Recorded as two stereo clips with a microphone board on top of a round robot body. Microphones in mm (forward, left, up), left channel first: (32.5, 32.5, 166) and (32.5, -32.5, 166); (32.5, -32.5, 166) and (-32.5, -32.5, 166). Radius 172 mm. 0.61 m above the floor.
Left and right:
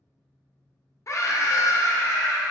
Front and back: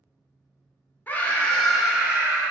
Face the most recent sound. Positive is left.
turn(degrees=125)